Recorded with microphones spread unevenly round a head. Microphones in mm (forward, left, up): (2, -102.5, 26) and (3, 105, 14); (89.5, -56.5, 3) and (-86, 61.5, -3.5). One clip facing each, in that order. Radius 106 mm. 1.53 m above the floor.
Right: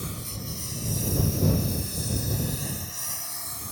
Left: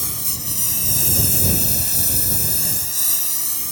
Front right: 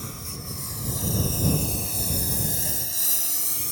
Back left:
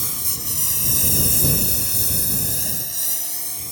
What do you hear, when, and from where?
0.0 s a lawn mower: 120° left; by 3.7 s 40° left